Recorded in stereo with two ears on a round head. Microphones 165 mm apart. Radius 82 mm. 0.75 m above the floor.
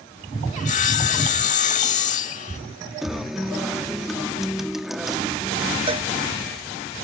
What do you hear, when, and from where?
0.6 s sawing: 40° left (ahead or behind)
3.0 s a guitar: centre (ahead or behind)
5.9 s a cowbell: 30° right (ahead or behind)